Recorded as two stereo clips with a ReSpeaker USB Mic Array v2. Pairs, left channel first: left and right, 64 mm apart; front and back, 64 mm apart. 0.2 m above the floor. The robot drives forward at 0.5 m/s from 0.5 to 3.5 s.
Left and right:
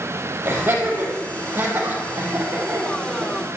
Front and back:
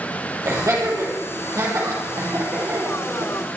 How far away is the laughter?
About 5.5 m.